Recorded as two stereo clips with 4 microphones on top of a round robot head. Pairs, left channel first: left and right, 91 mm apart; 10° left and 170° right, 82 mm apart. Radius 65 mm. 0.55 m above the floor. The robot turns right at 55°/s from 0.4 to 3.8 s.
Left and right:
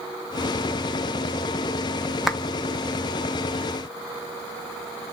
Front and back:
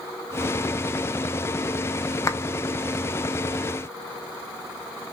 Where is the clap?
5° right, 0.6 m; by 2.4 s 5° left, 0.6 m.